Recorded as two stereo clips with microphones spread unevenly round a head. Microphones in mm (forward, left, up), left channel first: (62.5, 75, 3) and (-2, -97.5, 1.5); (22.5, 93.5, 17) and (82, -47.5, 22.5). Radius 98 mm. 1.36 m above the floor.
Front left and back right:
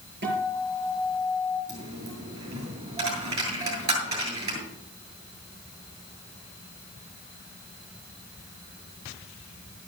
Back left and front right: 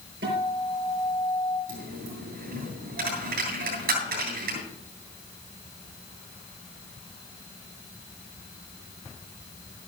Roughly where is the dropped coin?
Ahead right.